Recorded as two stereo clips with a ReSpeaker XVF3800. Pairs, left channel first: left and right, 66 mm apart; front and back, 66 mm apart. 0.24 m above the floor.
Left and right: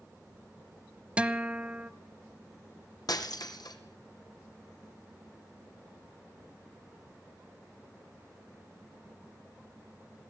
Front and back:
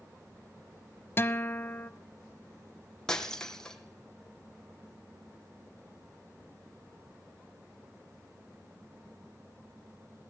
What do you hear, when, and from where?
1.2 s a guitar: 30° right, 0.9 m
3.1 s breaking glass: 80° left, 2.5 m